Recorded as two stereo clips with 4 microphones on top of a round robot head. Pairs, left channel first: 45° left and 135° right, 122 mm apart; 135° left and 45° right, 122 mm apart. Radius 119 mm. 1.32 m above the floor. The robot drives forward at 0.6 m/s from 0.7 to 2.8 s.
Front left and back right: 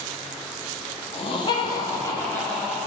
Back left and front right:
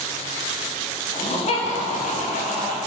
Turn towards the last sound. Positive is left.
turn(degrees=125)